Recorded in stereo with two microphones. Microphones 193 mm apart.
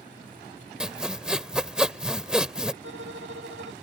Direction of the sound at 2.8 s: 85° right.